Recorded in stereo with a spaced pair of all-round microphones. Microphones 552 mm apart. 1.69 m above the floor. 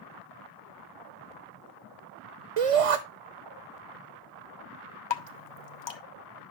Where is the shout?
80° right, 0.6 m.